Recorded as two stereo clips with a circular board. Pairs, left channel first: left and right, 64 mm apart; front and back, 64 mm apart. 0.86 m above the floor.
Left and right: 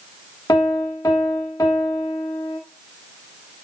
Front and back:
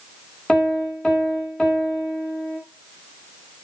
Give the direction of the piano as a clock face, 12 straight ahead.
9 o'clock.